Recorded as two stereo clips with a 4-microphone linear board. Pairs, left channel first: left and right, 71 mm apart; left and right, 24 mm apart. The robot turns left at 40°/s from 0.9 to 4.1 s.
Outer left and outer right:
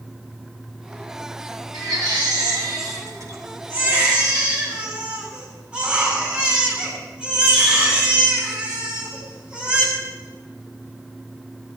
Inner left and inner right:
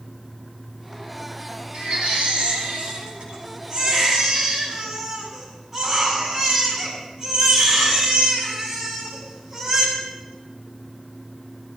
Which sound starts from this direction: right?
A baby crying, at 1.7 s.